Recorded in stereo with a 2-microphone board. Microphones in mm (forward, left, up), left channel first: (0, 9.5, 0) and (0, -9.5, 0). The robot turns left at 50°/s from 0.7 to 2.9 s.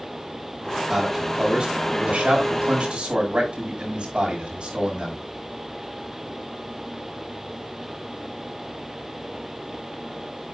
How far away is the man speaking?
About 6.5 m.